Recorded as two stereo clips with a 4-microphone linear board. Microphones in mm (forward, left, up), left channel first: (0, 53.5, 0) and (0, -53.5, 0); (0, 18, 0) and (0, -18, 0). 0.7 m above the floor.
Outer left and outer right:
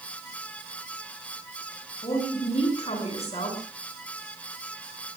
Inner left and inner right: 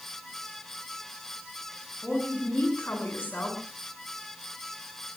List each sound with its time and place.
2.0 s a woman speaking: 75° left (ahead or behind), 7.5 m